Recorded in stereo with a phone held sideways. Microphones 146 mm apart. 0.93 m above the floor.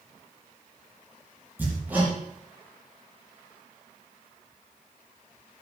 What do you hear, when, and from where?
1.6 s hammering: 15° right (ahead or behind), 6 m